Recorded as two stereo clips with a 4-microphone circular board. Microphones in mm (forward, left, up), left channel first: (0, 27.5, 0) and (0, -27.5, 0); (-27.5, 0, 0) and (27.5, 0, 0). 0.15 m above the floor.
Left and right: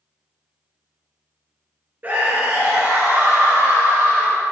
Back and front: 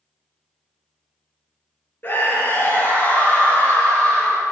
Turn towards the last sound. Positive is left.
turn(degrees=-115)